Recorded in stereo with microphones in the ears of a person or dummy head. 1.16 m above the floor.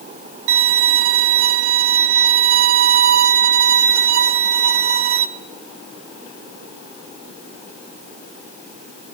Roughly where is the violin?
Right.